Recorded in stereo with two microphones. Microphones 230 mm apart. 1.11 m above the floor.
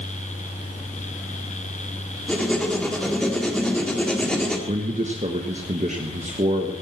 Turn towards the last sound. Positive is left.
turn(degrees=-30)  # may be behind; listen again after turning